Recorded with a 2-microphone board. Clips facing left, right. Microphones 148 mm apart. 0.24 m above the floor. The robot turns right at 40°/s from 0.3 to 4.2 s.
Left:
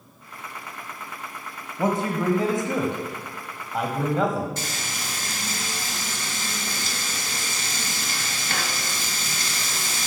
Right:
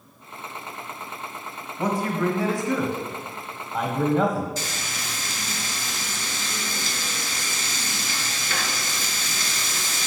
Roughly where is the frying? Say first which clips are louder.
Even; left.